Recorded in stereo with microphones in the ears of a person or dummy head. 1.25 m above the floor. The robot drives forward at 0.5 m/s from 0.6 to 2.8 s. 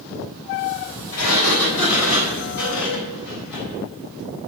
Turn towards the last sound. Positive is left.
turn(degrees=55)  # may be behind; listen again after turning